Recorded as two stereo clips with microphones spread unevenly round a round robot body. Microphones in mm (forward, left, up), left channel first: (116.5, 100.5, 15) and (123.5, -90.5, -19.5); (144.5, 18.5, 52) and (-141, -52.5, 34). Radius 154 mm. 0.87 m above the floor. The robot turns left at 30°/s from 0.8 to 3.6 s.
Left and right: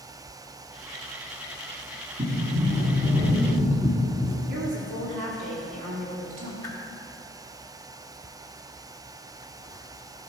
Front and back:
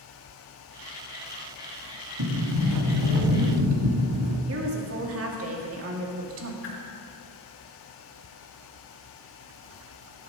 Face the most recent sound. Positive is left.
turn(degrees=15)